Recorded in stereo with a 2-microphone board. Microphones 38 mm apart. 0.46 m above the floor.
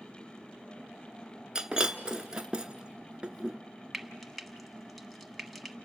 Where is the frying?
Centre (ahead or behind), 0.7 m.